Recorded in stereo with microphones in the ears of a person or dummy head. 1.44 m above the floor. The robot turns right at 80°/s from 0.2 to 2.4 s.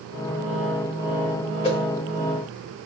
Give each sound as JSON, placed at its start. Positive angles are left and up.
{"t": 1.6, "sound": "a whoosh", "side_deg": 25, "distance_m": 0.6}